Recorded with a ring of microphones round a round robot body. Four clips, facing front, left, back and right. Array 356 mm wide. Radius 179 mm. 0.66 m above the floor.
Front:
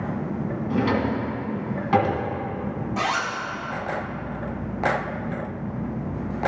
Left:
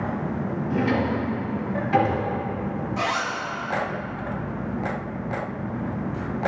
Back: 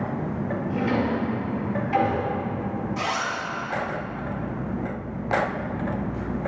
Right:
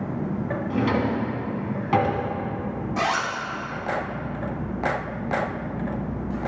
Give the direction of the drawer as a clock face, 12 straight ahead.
1 o'clock.